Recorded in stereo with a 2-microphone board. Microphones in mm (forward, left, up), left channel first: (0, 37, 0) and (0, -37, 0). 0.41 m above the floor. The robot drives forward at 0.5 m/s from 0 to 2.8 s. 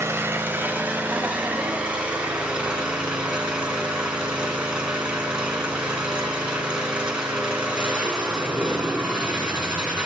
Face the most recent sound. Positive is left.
turn(degrees=-15)  # may be behind; listen again after turning